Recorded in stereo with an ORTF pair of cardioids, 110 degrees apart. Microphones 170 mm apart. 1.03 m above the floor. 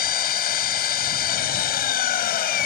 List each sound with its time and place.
0.0 s an engine running: 65° left